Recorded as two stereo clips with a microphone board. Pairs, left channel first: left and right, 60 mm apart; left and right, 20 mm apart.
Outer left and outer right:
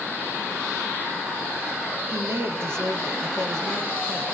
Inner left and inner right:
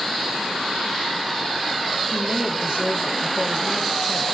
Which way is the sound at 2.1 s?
40° right (ahead or behind).